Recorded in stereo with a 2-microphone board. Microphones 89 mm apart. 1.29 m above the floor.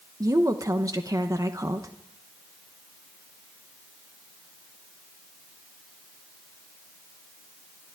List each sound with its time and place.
0.2 s a woman speaking: 40° right (ahead or behind), 1.0 m